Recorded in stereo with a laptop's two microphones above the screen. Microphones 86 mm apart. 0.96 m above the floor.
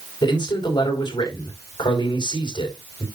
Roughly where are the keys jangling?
I don't hear keys jangling.